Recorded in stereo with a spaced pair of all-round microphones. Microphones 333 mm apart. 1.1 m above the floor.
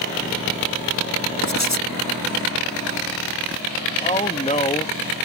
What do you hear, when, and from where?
1.4 s writing: 50° left (ahead or behind)
4.0 s a man speaking: 20° left (ahead or behind)